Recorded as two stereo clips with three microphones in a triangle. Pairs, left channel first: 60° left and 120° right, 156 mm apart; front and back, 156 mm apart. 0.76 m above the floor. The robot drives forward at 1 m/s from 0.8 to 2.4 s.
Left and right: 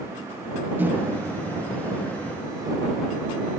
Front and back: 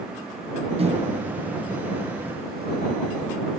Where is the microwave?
170° left; by 3.3 s 175° left.